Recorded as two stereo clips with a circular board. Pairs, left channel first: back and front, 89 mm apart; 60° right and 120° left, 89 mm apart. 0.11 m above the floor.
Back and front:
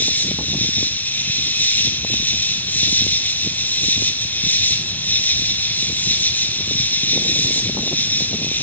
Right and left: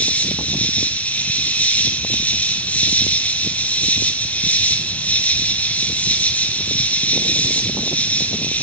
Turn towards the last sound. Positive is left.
turn(degrees=-125)